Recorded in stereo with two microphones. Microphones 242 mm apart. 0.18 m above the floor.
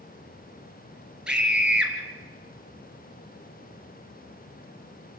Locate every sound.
1.3 s a scream: 5° right (ahead or behind), 3 m